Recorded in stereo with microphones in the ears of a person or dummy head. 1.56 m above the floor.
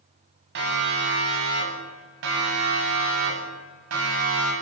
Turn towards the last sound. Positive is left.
turn(degrees=-85)